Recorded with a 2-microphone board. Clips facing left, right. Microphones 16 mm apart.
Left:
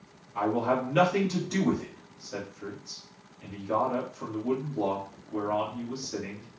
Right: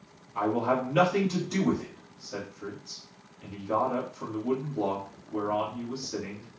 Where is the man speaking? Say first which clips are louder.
Even; 15° left (ahead or behind), 1.8 m.